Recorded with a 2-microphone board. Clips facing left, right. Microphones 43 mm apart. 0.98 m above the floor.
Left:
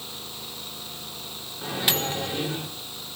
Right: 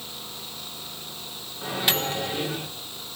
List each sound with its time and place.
1.6 s a microwave: centre (ahead or behind), 2.0 m